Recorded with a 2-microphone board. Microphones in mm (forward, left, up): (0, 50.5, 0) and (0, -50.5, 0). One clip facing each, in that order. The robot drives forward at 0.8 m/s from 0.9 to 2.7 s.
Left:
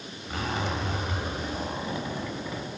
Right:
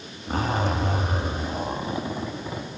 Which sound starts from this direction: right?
A zipper, at 0.3 s.